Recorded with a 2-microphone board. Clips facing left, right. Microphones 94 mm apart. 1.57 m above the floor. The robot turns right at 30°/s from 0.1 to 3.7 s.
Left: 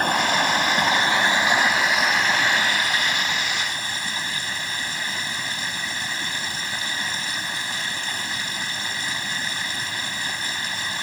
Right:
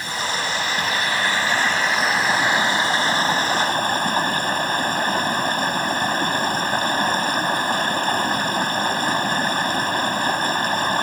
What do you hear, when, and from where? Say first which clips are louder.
0.0 s running water: left 5 dB; 120° left; by 11.0 s 130° right